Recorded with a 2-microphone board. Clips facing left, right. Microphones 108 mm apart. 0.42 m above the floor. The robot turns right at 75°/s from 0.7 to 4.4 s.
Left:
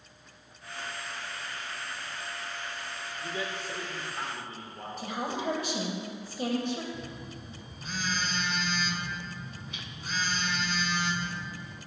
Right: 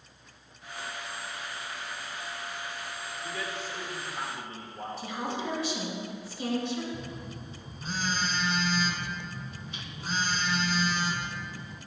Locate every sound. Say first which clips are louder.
3.2 s a man speaking: left 1 dB; 20° left (ahead or behind), 0.8 m; by 5.9 s 5° right (ahead or behind), 0.8 m
5.0 s a woman speaking: left 1 dB; 50° left (ahead or behind), 1.5 m
6.9 s a phone buzzing: right 2 dB; 35° right (ahead or behind), 0.8 m